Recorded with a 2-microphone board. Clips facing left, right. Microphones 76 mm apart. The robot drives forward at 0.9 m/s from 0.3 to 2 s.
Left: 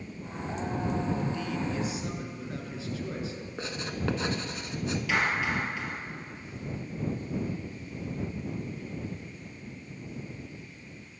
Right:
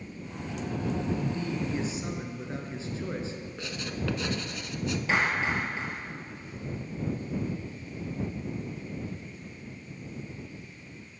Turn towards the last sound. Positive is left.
turn(degrees=-35)  # may be behind; listen again after turning